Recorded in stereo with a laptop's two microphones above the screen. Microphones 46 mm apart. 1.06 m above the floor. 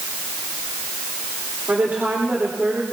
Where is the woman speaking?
55° right (ahead or behind), 2.5 m.